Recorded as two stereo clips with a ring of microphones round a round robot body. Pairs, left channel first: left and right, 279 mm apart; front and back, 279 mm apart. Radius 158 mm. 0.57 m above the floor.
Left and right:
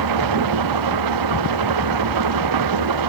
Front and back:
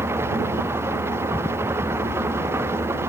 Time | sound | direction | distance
0.0 | an engine running | 95° right | ?